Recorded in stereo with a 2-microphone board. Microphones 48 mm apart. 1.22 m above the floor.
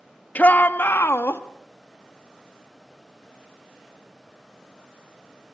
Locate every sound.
0.3 s a shout: 35° left (ahead or behind), 1.9 m; by 1.4 s 70° left (ahead or behind), 2.5 m